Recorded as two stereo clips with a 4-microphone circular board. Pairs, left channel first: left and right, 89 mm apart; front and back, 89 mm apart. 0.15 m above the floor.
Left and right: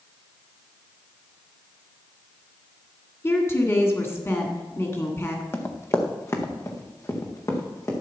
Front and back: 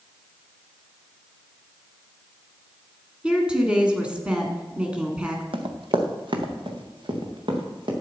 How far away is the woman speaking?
About 1.8 m.